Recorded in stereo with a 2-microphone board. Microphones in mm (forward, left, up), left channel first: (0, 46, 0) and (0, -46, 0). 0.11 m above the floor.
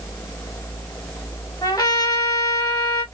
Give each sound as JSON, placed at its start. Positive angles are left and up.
{"t": 1.6, "sound": "a trumpet", "side_deg": 45, "distance_m": 2.5}